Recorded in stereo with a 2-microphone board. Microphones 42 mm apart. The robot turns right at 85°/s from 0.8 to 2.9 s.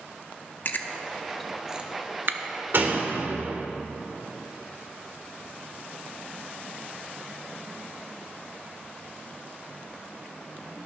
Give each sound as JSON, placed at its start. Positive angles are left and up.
{"t": 0.7, "sound": "chewing", "side_deg": 50, "distance_m": 0.7}
{"t": 2.7, "sound": "a door slam", "side_deg": -55, "distance_m": 1.5}